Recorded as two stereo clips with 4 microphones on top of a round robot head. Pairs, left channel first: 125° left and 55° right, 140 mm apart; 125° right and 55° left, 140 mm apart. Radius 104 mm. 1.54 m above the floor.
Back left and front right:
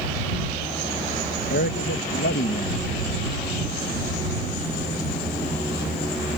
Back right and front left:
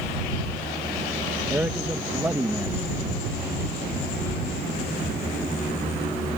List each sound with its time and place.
1.5 s a man speaking: 135° left